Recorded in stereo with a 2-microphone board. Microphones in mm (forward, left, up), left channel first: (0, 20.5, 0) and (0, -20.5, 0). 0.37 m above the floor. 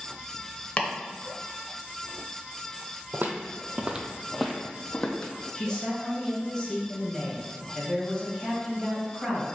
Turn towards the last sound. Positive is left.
turn(degrees=10)  # may be behind; listen again after turning